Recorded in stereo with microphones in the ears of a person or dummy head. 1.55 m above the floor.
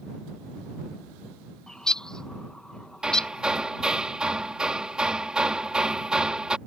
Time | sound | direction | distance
1.7 | a bird | 10° left (ahead or behind) | ?
3.0 | hammering | centre (ahead or behind) | ?